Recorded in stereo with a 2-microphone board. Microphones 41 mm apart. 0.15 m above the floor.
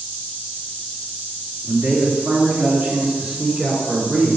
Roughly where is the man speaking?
Right.